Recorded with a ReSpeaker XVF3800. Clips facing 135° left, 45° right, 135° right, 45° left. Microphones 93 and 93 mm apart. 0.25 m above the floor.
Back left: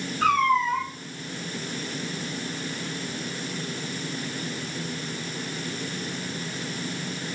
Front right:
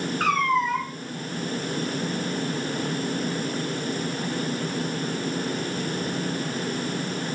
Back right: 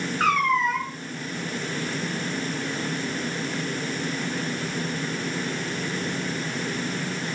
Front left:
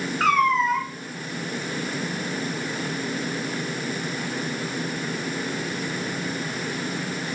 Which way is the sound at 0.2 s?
50° right.